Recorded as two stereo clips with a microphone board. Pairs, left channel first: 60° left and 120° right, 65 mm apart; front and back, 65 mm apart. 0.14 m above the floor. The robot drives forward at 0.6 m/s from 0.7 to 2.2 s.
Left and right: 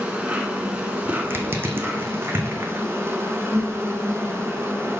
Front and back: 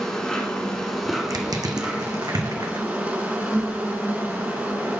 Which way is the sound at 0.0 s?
70° right.